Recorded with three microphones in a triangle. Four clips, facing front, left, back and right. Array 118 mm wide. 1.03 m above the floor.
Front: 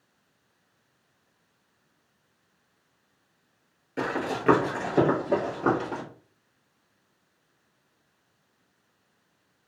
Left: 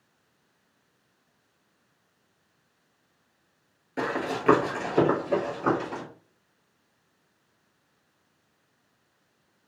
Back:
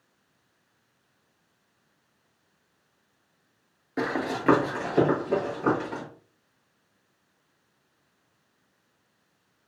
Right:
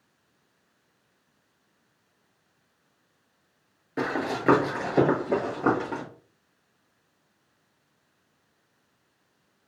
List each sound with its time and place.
4.0 s running footsteps: 160° right, 1.0 m; by 6.0 s 50° right, 1.4 m